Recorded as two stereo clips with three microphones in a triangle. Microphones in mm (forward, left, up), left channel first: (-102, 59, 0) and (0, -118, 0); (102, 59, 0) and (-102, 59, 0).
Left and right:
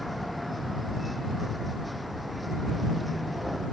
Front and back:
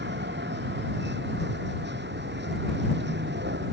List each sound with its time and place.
0.0 s a vehicle: 150° right